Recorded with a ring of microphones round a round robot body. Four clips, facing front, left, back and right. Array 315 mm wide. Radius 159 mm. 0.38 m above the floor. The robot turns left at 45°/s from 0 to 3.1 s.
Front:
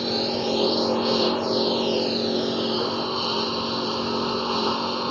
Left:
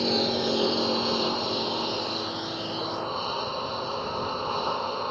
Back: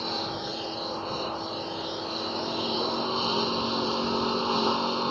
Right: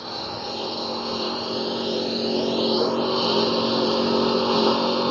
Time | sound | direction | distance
0.0 | a lawn mower | 55° left | ?